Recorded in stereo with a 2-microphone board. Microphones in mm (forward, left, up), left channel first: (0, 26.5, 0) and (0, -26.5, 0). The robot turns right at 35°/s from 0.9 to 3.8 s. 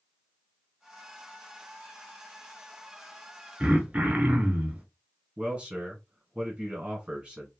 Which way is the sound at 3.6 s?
20° right (ahead or behind).